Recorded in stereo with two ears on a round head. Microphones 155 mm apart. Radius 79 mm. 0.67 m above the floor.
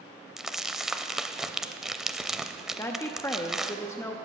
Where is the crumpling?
5° right (ahead or behind), 0.5 m.